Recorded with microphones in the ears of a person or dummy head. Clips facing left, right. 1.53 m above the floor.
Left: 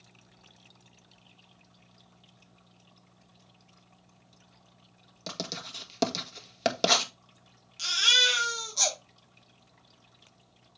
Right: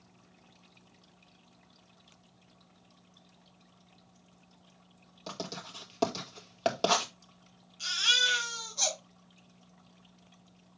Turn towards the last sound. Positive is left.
turn(degrees=85)